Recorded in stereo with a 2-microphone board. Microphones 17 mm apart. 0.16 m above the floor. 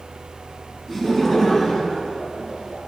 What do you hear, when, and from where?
0.9 s laughter: 15° left (ahead or behind), 1.1 m; by 2.8 s 40° left (ahead or behind), 2.5 m